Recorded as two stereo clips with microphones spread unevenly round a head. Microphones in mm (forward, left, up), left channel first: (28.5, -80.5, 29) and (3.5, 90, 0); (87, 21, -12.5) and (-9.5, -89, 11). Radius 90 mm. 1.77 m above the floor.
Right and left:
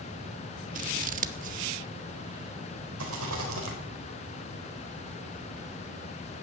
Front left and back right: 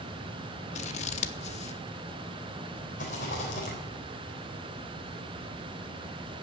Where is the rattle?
100° left, 3.5 m.